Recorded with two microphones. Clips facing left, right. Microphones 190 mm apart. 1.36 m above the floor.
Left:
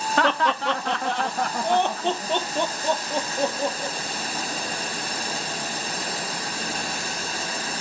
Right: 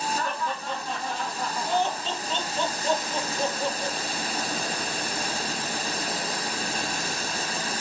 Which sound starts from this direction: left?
Laughter, at 0.2 s.